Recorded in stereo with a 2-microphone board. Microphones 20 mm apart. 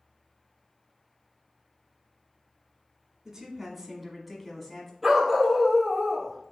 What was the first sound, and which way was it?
A woman speaking, 25° right (ahead or behind).